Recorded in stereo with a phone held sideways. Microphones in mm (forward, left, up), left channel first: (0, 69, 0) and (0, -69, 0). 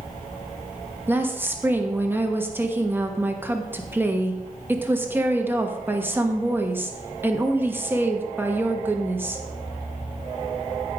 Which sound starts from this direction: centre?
A woman speaking, at 1.1 s.